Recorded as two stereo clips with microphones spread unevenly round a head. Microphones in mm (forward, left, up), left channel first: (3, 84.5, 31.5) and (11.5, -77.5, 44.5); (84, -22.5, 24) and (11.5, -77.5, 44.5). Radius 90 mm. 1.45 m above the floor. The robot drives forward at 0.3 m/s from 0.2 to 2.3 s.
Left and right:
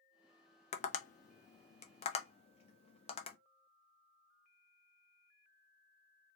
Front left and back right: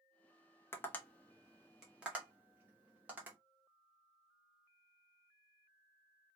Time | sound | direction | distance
0.7 | tapping | 75° left | 0.5 m